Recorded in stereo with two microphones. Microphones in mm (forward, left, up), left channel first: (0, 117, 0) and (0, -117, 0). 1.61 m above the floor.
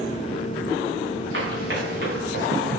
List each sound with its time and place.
1.3 s running footsteps: 55° right (ahead or behind), 5.5 m; by 2.8 s 45° right (ahead or behind), 5.5 m